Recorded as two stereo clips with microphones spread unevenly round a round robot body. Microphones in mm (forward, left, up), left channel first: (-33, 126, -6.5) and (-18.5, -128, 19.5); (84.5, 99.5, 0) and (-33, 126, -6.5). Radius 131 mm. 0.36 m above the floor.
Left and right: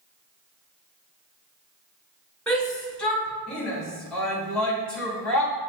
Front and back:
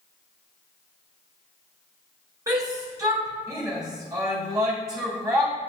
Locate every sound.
2.5 s a shout: 165° left, 1.5 m